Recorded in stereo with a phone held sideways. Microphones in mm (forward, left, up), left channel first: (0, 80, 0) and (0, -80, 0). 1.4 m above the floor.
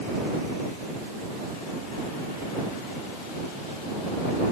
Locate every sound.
Only background noise.